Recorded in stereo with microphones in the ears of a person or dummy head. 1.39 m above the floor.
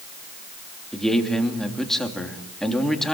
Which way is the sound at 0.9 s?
Centre (ahead or behind).